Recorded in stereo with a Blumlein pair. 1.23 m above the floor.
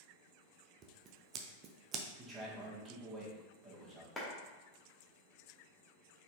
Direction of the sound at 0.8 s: 30° right.